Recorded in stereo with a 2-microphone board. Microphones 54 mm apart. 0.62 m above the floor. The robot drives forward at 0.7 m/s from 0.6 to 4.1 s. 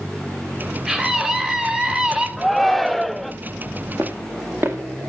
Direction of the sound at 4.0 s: 45° right (ahead or behind).